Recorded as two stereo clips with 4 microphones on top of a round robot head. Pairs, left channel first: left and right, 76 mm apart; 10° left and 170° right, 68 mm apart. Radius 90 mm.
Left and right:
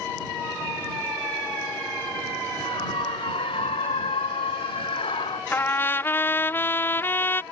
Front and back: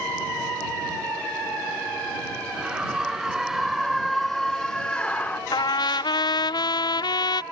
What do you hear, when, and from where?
2.5 s a scream: 110° left; by 5.4 s 75° left
5.5 s a trumpet: 25° left